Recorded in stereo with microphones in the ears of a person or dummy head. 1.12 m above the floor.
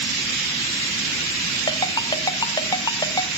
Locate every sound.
1.7 s a ringtone: 20° left (ahead or behind), 1.2 m